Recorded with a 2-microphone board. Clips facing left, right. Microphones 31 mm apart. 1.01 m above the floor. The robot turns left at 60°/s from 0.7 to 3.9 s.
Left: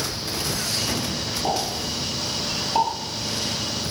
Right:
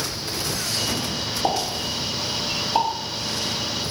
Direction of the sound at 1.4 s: 35° right (ahead or behind).